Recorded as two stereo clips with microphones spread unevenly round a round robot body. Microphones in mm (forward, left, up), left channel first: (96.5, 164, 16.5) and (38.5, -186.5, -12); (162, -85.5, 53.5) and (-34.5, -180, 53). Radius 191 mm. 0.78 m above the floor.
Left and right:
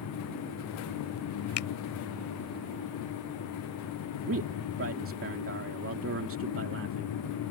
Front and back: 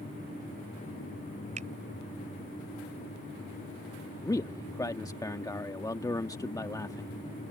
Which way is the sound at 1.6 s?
135° left.